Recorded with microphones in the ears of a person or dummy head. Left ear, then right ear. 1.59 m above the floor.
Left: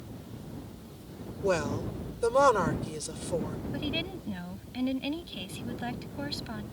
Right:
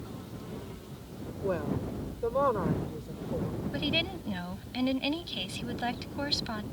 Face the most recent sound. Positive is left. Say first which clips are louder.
# right 4 dB
turn(degrees=-20)  # may be behind; listen again after turning